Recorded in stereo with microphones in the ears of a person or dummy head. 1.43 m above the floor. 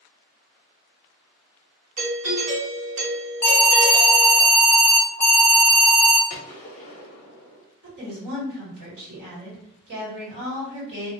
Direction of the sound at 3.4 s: 10° left (ahead or behind).